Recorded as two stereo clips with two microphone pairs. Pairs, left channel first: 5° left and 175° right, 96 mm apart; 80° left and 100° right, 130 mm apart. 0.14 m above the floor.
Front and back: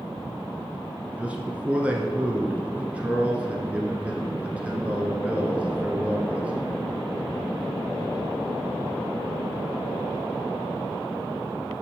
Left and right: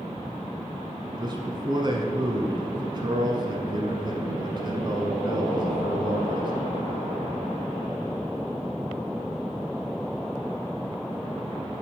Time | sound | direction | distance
1.2 | a man speaking | 105° right | 1.2 m